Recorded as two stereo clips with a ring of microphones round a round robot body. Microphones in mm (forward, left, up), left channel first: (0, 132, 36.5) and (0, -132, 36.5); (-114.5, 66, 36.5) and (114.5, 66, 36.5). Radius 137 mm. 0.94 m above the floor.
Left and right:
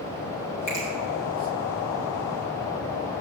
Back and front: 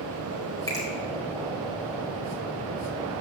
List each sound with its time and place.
0.7 s a finger snap: 105° left, 4.5 m